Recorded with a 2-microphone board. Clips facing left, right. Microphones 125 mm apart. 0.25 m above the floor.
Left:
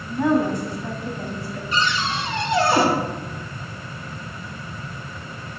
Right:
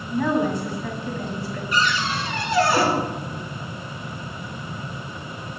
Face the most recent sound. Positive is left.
turn(degrees=25)  # may be behind; listen again after turning